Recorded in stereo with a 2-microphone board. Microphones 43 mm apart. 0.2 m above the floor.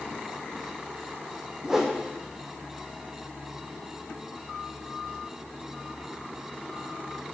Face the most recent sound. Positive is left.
turn(degrees=-15)  # may be behind; listen again after turning